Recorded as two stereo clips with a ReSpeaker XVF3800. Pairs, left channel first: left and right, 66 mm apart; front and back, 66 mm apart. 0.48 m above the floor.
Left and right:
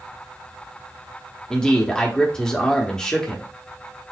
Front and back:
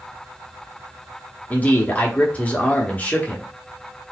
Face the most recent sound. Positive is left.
turn(degrees=20)